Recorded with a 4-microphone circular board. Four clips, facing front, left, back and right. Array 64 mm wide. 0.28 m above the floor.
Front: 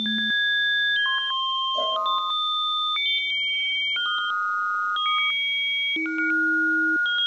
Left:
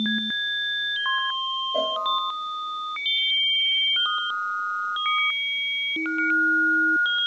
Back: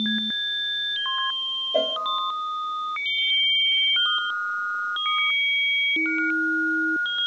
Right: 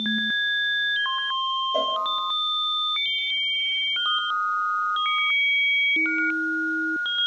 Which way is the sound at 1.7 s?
170° right.